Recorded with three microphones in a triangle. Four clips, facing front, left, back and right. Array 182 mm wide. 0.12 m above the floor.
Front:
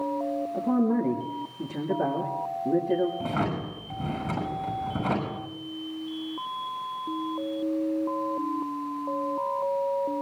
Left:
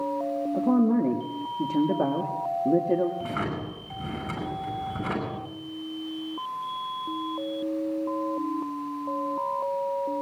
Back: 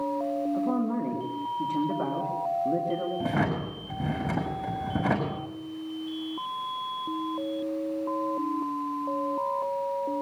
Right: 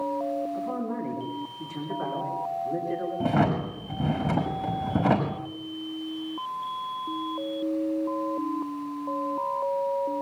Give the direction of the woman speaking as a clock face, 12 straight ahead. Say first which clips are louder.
Left 8 dB, front 3 dB; 9 o'clock.